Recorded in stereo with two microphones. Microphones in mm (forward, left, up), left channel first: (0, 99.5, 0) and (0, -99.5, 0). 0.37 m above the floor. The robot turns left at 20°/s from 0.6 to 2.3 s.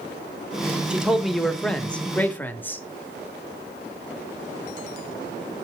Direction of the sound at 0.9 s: 5° right (ahead or behind).